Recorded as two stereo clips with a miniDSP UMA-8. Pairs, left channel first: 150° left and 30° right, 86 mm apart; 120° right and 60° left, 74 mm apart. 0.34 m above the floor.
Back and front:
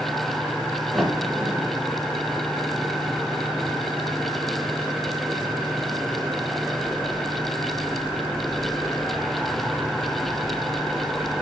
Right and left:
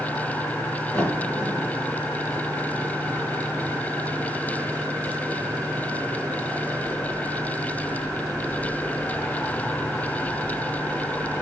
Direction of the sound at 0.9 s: 115° right.